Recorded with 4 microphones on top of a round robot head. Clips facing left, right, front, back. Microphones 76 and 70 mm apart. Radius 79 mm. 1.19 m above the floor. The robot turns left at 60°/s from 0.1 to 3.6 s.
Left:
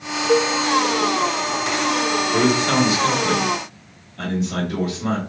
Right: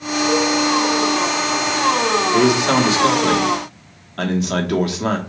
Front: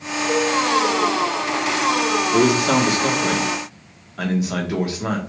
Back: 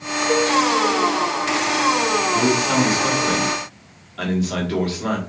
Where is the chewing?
I don't hear chewing.